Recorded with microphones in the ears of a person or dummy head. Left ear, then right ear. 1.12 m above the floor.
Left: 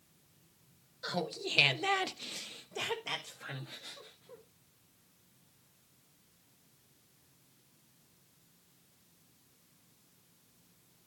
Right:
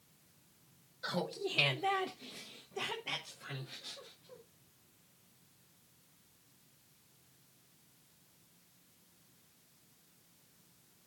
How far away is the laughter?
About 1.4 m.